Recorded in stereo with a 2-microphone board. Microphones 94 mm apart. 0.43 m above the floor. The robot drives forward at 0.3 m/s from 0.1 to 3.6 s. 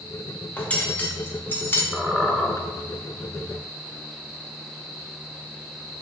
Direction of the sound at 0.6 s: 15° left (ahead or behind).